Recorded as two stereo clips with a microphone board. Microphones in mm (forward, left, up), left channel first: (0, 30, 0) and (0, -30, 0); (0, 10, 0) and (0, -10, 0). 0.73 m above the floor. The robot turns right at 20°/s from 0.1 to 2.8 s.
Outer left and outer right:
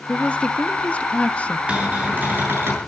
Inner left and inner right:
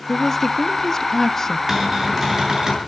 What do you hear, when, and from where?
0.1 s a woman speaking: 20° left (ahead or behind), 1.0 m; by 1.6 s 25° left (ahead or behind), 1.0 m
1.7 s a cupboard door: 20° right (ahead or behind), 7 m; by 2.8 s 45° right (ahead or behind), 7 m